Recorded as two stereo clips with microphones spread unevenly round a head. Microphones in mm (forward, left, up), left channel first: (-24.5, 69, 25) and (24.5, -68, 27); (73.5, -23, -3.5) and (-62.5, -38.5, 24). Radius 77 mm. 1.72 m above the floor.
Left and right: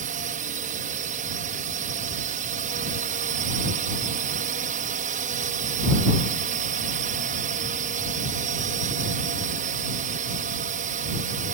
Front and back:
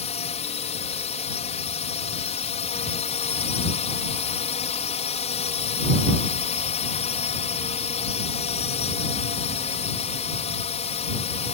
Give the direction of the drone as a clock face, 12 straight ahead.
1 o'clock.